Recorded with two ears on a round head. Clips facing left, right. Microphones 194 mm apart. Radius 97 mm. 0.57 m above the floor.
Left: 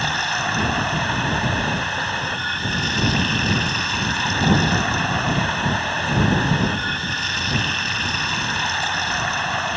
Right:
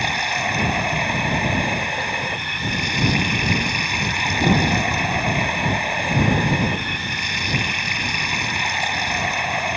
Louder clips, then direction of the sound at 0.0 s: Right 1 dB; 10° right (ahead or behind).